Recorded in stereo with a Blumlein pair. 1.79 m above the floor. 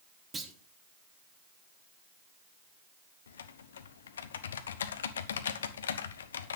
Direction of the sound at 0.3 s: 15° right.